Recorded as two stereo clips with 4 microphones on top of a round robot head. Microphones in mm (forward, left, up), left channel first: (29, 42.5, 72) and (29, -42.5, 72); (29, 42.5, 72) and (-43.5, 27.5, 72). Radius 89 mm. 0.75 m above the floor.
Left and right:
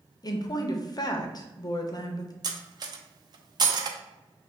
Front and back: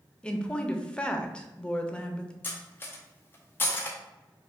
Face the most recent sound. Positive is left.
turn(degrees=-50)